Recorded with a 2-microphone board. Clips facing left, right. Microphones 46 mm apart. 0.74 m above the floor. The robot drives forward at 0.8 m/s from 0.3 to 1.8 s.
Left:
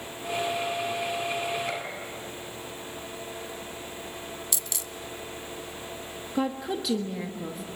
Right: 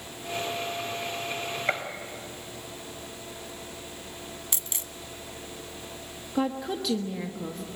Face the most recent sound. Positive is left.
turn(degrees=5)  # may be behind; listen again after turning